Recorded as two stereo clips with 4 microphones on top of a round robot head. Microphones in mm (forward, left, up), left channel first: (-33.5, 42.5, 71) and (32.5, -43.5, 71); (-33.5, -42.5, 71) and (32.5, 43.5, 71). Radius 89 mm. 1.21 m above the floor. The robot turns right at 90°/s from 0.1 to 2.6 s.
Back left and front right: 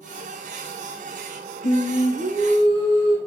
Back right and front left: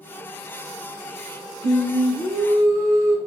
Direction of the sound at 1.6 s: 90° right.